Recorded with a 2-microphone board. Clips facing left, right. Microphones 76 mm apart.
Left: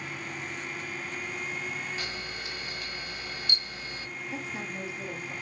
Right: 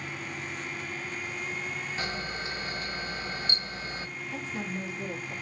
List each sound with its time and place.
2.0 s a camera shutter: 35° right (ahead or behind), 1.8 m
4.3 s a woman speaking: 15° left (ahead or behind), 7 m